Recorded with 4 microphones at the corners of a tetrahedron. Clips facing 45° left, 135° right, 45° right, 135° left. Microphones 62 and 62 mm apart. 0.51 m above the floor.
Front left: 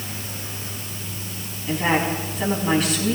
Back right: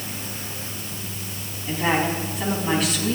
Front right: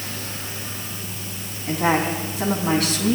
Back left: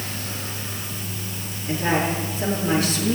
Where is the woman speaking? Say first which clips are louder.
Front left 1 dB, front right 2 dB; 45° right, 4.5 m.